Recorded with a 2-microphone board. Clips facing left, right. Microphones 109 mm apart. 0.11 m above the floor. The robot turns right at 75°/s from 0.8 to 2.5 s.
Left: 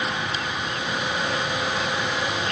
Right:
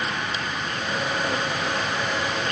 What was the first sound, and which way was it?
Only background noise.